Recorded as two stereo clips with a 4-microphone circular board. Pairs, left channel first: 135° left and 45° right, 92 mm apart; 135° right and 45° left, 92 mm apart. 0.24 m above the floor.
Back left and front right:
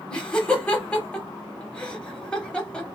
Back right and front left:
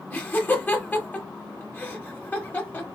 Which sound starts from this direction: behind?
Laughter, at 0.1 s.